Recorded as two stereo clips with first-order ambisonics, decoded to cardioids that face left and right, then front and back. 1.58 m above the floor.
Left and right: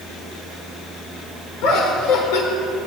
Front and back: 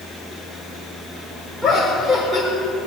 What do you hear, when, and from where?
1.6 s laughter: 95° left, 4.5 m